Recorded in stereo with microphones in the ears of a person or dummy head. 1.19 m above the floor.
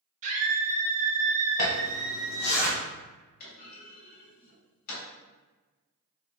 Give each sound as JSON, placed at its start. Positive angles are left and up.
{"t": 0.2, "sound": "a scream", "side_deg": -40, "distance_m": 0.9}
{"t": 1.6, "sound": "a zipper", "side_deg": 70, "distance_m": 1.1}
{"t": 3.4, "sound": "a clunk", "side_deg": 50, "distance_m": 1.8}